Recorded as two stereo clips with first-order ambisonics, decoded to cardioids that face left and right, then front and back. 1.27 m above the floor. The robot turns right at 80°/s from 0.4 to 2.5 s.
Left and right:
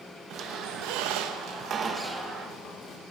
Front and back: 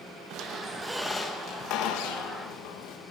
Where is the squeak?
135° right, 0.9 m; by 3.0 s 30° left, 0.9 m.